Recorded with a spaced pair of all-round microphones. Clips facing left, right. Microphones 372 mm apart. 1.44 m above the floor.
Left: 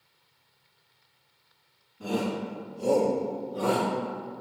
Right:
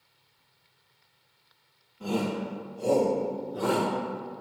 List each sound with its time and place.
2.0 s a shout: 30° left (ahead or behind), 3 m; by 3.9 s 10° right (ahead or behind), 1.5 m